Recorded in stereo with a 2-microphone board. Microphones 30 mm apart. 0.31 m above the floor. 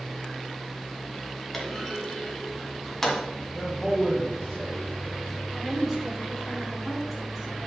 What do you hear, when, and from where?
1.5 s a clunk: 15° left (ahead or behind), 2.0 m
3.5 s a man speaking: 15° left (ahead or behind), 1.7 m
5.5 s a woman speaking: centre (ahead or behind), 3.5 m